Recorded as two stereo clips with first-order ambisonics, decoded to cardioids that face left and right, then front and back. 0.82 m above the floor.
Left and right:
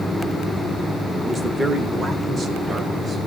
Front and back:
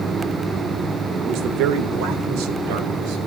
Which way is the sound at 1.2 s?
170° right.